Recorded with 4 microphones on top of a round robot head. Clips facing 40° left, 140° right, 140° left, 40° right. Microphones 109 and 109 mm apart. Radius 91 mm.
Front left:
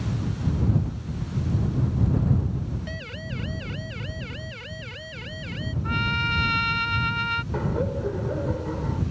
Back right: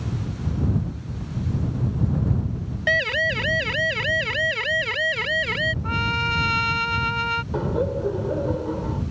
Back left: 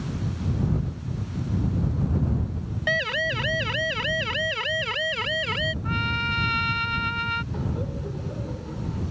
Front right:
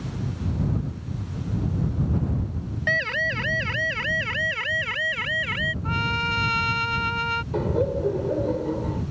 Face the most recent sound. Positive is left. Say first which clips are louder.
# back right 3 dB, front right 8 dB
turn(degrees=-70)